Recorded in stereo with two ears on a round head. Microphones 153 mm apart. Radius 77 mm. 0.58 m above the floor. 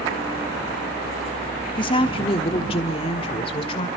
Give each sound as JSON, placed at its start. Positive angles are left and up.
{"t": 1.8, "sound": "a woman speaking", "side_deg": 30, "distance_m": 1.0}